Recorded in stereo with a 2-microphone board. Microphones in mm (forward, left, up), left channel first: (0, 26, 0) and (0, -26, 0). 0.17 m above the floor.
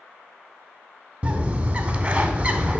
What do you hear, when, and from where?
1.2 s a bird: 25° right (ahead or behind), 0.5 m